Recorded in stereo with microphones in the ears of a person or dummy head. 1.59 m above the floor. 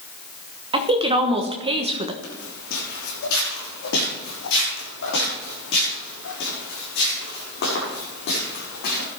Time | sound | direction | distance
0.7 | a woman speaking | 35° right (ahead or behind) | 1.2 m
2.2 | footsteps | 65° left (ahead or behind) | 5 m